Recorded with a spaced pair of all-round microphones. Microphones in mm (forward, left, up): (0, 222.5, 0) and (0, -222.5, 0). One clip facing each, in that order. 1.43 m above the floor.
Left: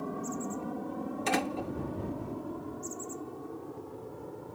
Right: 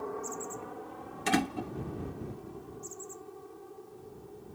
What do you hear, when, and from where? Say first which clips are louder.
0.0 s an aircraft: left 2 dB; 50° left (ahead or behind); by 4.5 s 75° left (ahead or behind)
1.3 s a door slam: right 3 dB; 30° right (ahead or behind)